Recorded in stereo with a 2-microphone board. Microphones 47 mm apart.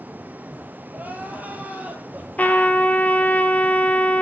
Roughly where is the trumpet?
Left.